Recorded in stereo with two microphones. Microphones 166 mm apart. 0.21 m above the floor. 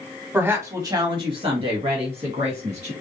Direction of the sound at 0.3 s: 10° right (ahead or behind).